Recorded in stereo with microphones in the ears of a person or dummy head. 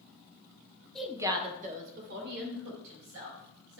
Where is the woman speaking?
10° left (ahead or behind), 1.0 m; by 3.8 s 70° right (ahead or behind), 4.5 m.